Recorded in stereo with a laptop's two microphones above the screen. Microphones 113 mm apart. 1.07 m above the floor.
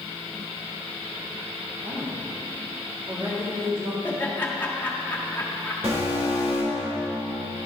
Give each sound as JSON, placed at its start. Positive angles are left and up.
{"t": 1.8, "sound": "a woman speaking", "side_deg": -60, "distance_m": 2.5}
{"t": 4.0, "sound": "laughter", "side_deg": 20, "distance_m": 1.7}
{"t": 5.8, "sound": "an alarm", "side_deg": -60, "distance_m": 2.5}